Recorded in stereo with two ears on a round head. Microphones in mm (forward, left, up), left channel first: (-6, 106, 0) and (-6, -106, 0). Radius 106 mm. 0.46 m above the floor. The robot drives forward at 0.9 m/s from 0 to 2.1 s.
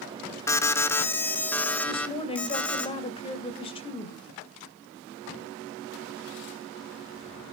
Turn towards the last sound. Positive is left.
turn(degrees=25)  # may be behind; listen again after turning